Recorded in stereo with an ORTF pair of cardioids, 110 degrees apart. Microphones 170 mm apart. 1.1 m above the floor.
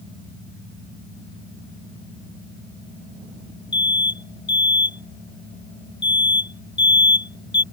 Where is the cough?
No cough in this recording.